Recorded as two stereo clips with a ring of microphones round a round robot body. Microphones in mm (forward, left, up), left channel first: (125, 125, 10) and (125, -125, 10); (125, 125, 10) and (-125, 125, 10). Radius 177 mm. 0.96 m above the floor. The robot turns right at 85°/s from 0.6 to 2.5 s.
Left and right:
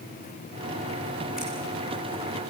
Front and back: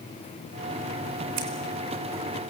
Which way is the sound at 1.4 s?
Straight behind.